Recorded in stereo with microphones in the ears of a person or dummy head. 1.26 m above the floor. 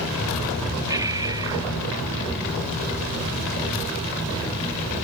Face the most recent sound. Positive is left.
turn(degrees=-15)  # may be behind; listen again after turning